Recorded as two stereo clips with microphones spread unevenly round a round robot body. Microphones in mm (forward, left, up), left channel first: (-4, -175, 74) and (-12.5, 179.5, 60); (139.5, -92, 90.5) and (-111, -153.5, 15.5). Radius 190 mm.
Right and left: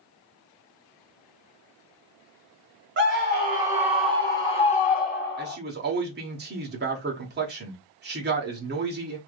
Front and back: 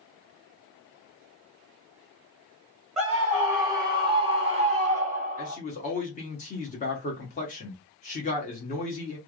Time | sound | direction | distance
3.0 | a scream | 130° left | 1.1 m
5.4 | a man speaking | 80° left | 1.1 m